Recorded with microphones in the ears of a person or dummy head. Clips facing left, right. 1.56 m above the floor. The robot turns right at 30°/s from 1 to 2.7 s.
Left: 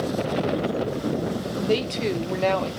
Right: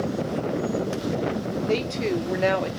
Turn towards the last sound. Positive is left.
turn(degrees=-165)